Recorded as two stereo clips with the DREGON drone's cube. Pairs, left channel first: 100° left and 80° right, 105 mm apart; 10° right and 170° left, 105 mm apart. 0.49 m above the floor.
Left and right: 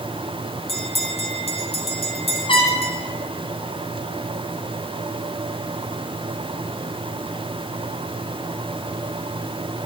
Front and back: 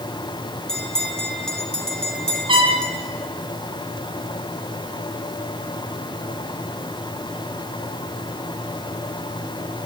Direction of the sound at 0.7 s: 75° left.